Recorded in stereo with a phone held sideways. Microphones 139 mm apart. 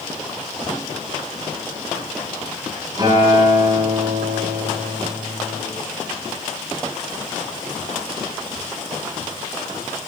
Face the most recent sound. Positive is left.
turn(degrees=-30)  # may be behind; listen again after turning